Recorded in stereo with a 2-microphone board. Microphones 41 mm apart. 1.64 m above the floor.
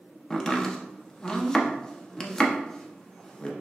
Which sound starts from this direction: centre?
Chopping, at 0.3 s.